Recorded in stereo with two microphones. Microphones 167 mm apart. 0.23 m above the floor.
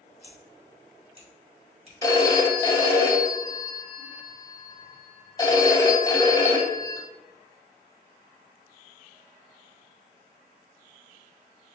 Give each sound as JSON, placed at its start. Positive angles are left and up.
{"t": 0.2, "sound": "scissors", "side_deg": -40, "distance_m": 1.7}
{"t": 2.0, "sound": "a phone ringing", "side_deg": 25, "distance_m": 0.6}